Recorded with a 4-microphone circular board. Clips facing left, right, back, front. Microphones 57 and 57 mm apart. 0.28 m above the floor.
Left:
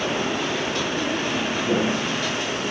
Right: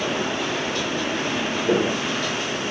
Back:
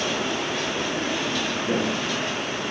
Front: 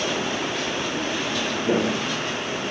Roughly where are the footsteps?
Ahead right.